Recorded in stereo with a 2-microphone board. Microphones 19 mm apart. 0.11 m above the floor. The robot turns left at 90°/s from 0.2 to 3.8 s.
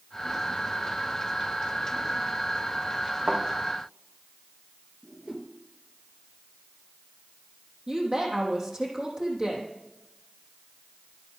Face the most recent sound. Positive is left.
turn(degrees=-40)  # may be behind; listen again after turning